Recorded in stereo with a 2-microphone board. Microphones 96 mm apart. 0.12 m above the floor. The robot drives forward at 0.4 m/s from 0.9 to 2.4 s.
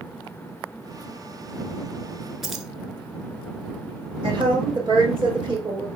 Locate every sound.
2.4 s keys jangling: 5° right (ahead or behind), 1.0 m
4.2 s a woman speaking: 50° right (ahead or behind), 4.5 m